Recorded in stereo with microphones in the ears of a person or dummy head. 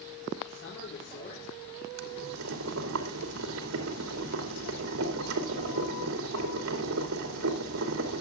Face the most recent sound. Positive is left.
turn(degrees=-80)